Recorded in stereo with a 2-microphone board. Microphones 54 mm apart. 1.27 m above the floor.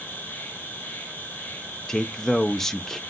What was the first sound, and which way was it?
An insect, 40° left (ahead or behind).